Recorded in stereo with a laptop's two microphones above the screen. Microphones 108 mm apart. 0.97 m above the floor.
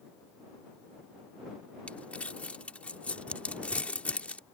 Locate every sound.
1.9 s crumpling: 10° left (ahead or behind)